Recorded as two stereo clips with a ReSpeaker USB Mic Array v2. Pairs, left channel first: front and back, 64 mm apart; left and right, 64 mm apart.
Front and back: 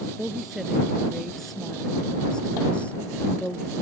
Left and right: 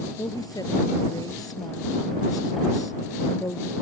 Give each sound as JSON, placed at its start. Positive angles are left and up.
{"t": 0.2, "sound": "a woman speaking", "azimuth_deg": 100}